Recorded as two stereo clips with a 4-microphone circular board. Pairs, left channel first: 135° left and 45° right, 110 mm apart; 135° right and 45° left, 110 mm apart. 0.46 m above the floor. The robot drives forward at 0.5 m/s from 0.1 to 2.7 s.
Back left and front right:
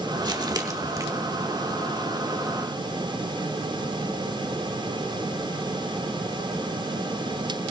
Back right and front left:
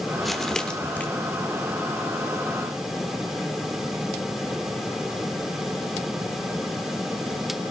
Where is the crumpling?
45° right, 1.2 m; by 1.1 s 75° right, 1.1 m.